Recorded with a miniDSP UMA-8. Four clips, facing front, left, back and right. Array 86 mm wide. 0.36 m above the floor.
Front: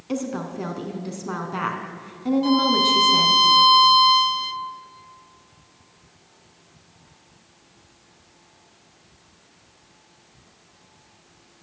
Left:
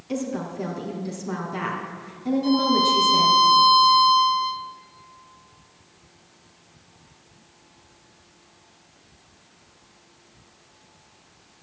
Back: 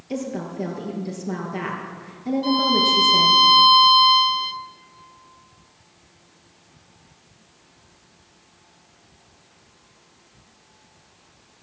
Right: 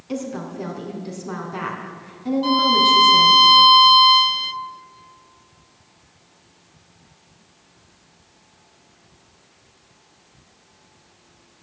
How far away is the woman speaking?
About 3 m.